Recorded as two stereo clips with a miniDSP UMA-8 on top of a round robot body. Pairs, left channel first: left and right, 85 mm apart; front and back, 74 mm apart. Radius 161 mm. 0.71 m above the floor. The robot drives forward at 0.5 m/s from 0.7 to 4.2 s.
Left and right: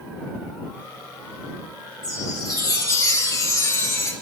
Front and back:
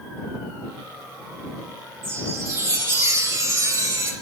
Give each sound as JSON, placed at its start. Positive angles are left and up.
{"t": 2.0, "sound": "a chime", "azimuth_deg": 135, "distance_m": 3.0}